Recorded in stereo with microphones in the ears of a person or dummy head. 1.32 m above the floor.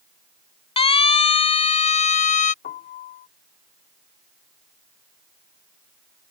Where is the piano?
40° left (ahead or behind).